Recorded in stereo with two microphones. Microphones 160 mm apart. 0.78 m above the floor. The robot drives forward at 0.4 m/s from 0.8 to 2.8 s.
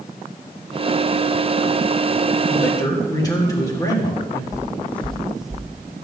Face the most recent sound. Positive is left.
turn(degrees=-5)  # may be behind; listen again after turning